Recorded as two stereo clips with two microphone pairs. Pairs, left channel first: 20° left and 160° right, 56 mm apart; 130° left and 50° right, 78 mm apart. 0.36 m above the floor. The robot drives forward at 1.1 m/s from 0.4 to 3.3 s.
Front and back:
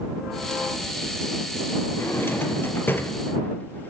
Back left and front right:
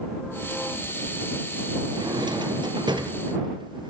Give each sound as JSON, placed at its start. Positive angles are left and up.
{"t": 1.9, "sound": "a drawer", "azimuth_deg": -25, "distance_m": 4.0}